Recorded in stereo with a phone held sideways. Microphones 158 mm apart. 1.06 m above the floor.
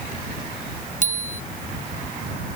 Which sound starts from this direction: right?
A bicycle bell, at 1.0 s.